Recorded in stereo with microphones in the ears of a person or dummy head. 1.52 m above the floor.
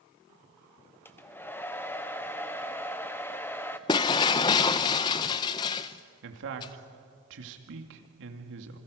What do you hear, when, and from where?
1.1 s a hair dryer: 10° left (ahead or behind), 0.8 m
3.9 s breaking glass: 25° left (ahead or behind), 0.6 m
6.2 s a man speaking: 65° right (ahead or behind), 2.5 m